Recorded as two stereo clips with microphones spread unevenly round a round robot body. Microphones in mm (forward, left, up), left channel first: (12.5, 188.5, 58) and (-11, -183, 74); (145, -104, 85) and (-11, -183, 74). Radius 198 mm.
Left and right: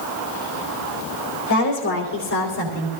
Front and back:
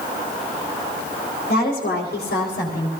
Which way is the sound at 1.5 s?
55° left.